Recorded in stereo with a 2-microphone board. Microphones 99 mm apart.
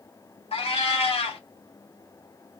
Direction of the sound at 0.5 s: 75° left (ahead or behind).